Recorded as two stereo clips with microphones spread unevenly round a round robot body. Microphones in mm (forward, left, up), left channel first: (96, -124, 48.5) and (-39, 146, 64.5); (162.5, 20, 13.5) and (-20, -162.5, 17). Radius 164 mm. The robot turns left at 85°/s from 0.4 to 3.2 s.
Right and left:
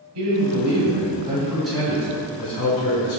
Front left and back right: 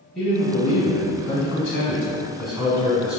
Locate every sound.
0.1 s a man speaking: 130° left, 1.4 m; by 3.2 s 105° right, 1.4 m